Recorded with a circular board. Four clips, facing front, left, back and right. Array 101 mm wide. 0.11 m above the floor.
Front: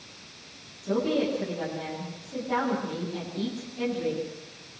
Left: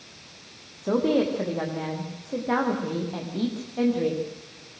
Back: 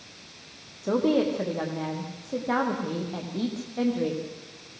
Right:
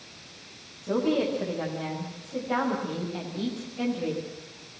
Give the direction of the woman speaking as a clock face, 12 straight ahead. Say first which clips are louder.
Left 3 dB, back 3 dB; 8 o'clock.